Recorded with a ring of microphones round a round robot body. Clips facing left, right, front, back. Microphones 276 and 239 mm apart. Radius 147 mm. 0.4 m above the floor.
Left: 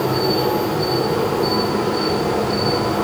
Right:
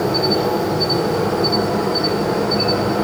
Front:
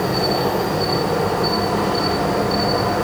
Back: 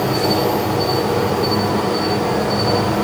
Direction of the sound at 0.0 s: 160° left.